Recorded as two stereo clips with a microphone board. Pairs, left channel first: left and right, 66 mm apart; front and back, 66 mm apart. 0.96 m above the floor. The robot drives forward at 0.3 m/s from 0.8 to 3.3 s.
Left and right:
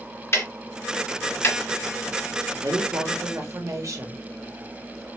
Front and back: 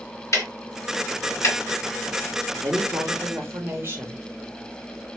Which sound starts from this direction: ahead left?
Ticking, at 0.3 s.